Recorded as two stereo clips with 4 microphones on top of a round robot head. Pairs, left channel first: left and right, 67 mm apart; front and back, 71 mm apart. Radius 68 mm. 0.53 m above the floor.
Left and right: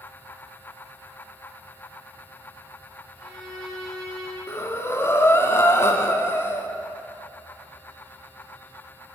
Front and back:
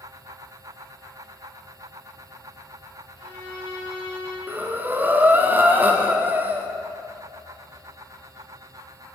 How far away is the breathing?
About 0.7 m.